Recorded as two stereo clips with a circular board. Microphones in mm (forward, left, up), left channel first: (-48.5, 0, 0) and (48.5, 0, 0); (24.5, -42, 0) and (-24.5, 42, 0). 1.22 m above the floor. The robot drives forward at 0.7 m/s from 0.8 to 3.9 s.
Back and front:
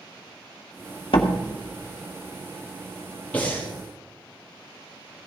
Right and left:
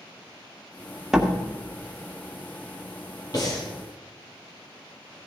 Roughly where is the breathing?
Right.